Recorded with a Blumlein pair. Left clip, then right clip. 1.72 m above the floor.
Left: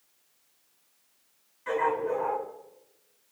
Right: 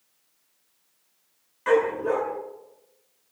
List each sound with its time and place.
1.7 s a dog barking: 35° right, 9 m